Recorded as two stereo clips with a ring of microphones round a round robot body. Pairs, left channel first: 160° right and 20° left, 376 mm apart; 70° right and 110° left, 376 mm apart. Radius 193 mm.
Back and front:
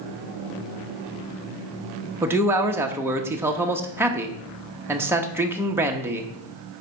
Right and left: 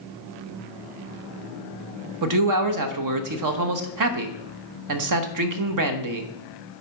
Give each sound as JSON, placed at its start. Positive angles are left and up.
{"t": 2.2, "sound": "a man speaking", "azimuth_deg": 105, "distance_m": 1.1}